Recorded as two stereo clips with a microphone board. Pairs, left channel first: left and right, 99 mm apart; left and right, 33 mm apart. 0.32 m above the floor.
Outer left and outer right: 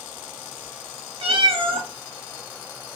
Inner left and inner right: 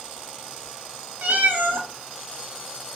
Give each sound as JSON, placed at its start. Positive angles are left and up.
{"t": 1.2, "sound": "a cat meowing", "side_deg": -70, "distance_m": 0.6}